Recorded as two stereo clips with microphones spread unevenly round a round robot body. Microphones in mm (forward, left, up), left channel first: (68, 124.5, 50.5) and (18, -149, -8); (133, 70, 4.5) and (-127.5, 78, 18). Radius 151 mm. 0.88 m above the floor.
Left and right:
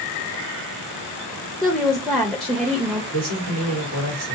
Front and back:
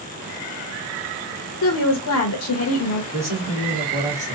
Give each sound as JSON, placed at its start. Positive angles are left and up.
{"t": 1.6, "sound": "a woman speaking", "azimuth_deg": -15, "distance_m": 0.6}
{"t": 3.1, "sound": "a man speaking", "azimuth_deg": -100, "distance_m": 1.5}